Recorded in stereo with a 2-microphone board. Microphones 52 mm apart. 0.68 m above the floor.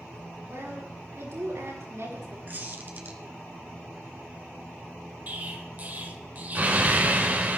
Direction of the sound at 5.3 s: 35° right (ahead or behind).